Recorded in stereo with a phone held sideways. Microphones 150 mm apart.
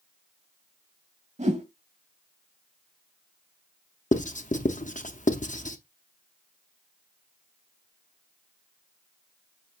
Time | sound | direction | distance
1.4 | a whoosh | 55° right (ahead or behind) | 1.5 m
4.1 | writing | 60° left (ahead or behind) | 0.9 m